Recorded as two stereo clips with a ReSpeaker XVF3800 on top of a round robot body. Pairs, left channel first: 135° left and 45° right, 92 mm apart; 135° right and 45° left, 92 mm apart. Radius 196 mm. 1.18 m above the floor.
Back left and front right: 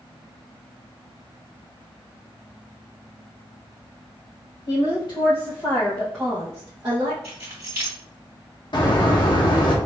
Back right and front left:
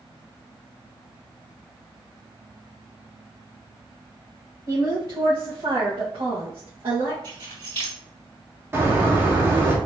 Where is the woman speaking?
105° left, 1.8 m; by 7.1 s 5° right, 1.3 m.